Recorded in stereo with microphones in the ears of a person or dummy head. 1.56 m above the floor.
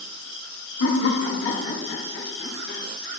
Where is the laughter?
85° left, 1.0 m; by 2.8 s 55° left (ahead or behind), 2.5 m.